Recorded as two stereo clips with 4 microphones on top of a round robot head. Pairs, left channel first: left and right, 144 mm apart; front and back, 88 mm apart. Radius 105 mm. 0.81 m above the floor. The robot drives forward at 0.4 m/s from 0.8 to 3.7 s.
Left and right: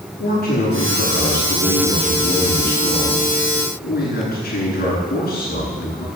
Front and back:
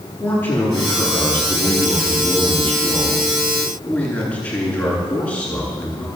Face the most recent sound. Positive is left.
turn(degrees=70)